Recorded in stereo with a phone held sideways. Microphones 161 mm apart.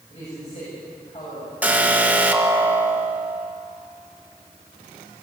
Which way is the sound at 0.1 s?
40° left (ahead or behind).